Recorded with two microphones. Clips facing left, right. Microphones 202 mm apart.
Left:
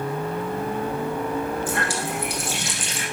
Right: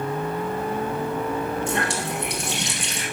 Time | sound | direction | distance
1.7 | a running tap | 25° right (ahead or behind) | 4 m